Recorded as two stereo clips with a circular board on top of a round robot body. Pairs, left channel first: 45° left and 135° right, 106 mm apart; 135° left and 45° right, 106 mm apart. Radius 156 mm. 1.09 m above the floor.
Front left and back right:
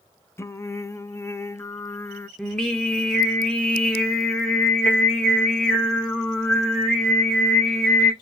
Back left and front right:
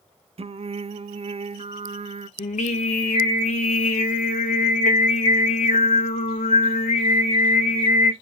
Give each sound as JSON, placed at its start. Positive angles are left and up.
{"t": 0.4, "sound": "singing", "azimuth_deg": -20, "distance_m": 0.5}
{"t": 2.4, "sound": "singing", "azimuth_deg": 130, "distance_m": 0.9}